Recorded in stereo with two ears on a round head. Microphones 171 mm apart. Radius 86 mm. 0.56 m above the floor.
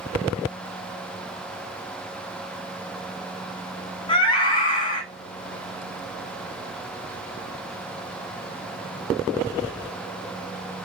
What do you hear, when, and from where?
4.1 s a scream: 25° left (ahead or behind), 1.4 m